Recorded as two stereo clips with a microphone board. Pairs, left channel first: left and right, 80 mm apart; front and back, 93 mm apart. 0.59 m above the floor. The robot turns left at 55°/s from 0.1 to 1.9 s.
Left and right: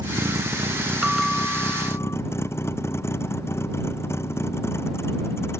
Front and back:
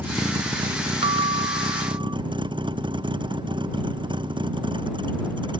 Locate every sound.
0.0 s a vehicle: 115° right; by 5.6 s 150° left
1.0 s a bell: 170° right; by 2.2 s 140° left